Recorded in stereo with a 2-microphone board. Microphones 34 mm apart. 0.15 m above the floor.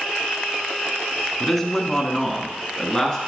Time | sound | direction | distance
1.4 | a man speaking | 10° left (ahead or behind) | 1.2 m